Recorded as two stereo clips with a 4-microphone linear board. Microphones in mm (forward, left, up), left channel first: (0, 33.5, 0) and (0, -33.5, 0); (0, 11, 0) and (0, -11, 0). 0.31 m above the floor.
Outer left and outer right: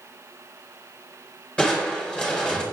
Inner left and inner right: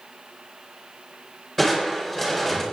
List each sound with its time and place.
1.6 s crushing: 15° left (ahead or behind), 3.5 m